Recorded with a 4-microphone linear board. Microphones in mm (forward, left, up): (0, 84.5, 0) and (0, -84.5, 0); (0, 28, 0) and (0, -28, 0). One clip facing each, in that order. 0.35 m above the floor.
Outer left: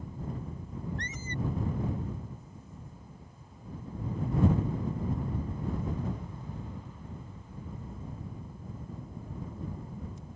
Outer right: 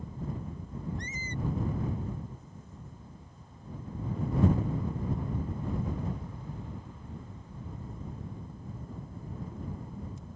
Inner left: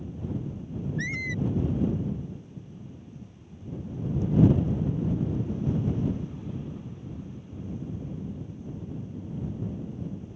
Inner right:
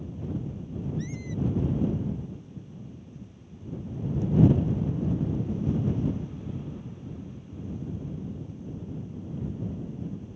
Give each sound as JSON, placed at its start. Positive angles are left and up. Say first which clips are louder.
{"t": 1.0, "sound": "a squeak", "louder": "outer left 1 dB, inner left 6 dB", "side_deg": 75}